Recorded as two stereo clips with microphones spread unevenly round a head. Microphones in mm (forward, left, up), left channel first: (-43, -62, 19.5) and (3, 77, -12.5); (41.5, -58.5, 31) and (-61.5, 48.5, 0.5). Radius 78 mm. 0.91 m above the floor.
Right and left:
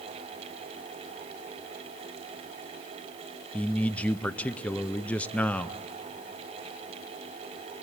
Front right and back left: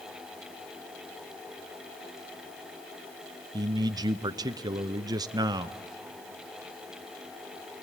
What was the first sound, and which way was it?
A man speaking, 160° left.